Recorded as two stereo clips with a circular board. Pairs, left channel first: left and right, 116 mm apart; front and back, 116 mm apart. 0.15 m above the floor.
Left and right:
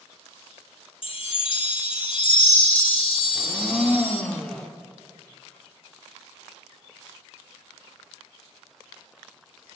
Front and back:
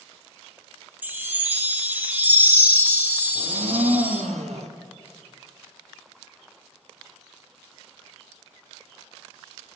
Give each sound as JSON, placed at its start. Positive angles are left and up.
{"t": 1.0, "sound": "a chime", "azimuth_deg": 110, "distance_m": 1.3}
{"t": 3.4, "sound": "a blender", "azimuth_deg": 175, "distance_m": 1.2}